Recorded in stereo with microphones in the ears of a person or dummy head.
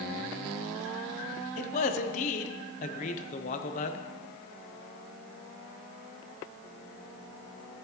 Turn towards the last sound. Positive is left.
turn(degrees=30)  # may be behind; listen again after turning